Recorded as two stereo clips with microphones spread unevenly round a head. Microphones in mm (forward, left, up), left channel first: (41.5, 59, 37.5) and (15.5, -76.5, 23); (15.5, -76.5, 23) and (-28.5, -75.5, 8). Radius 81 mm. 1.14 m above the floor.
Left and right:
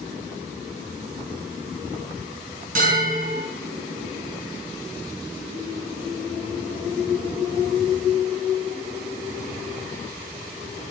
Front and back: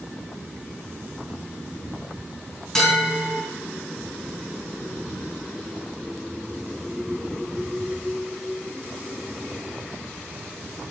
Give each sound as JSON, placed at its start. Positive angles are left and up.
{"t": 2.8, "sound": "a bell", "azimuth_deg": -70, "distance_m": 3.5}